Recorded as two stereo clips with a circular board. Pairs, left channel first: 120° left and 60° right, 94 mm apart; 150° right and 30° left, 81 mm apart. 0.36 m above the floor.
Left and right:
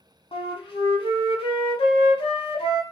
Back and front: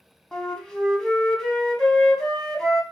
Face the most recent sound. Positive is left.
turn(degrees=125)